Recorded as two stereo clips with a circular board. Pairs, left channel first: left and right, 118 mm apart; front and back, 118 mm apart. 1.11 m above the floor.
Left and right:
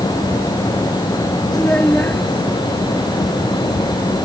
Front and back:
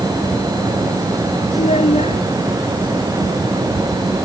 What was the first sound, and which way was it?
A child speaking, 15° left.